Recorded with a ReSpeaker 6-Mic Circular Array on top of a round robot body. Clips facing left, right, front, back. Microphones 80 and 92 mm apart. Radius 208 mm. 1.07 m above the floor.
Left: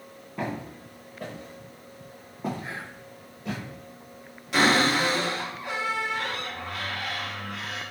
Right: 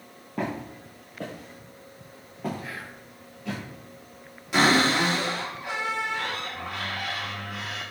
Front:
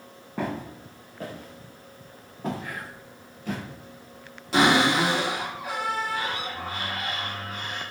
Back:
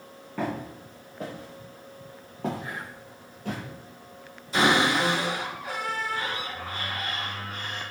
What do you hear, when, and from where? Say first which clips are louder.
0.4 s footsteps: right 2 dB, even; 70° right, 1.2 m; by 3.6 s 150° left, 1.5 m
2.6 s whispering: left 1 dB, even; 130° left, 0.9 m
4.5 s a cupboard door: right 1 dB, front 2 dB; 5° right, 2.5 m